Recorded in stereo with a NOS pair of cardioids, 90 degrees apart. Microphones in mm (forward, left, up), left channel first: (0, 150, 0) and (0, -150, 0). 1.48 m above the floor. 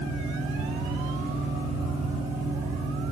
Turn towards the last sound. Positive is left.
turn(degrees=-20)